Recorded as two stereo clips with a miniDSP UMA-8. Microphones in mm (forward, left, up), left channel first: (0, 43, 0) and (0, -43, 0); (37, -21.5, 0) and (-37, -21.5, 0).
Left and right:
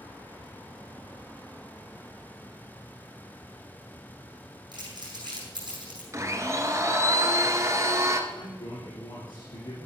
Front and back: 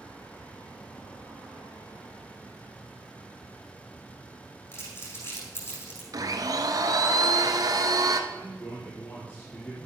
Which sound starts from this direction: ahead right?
Crumpling, at 4.7 s.